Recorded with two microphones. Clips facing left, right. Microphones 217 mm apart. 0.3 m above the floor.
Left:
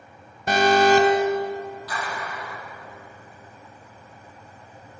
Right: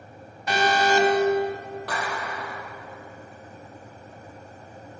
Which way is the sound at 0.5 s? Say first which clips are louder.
Left 5 dB; 50° left (ahead or behind).